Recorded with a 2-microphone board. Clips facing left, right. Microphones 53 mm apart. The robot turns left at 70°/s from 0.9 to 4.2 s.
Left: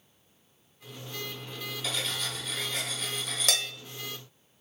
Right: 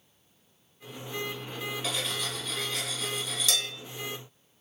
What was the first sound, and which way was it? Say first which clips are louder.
Cutlery clinking: left 2 dB; 25° right (ahead or behind).